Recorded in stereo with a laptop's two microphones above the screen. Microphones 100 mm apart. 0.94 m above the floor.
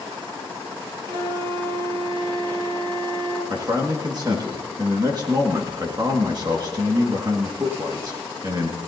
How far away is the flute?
About 6 m.